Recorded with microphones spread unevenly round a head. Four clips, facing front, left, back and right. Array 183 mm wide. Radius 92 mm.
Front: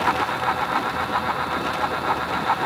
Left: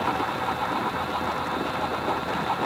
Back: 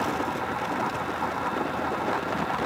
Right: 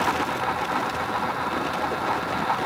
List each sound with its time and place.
Only background noise.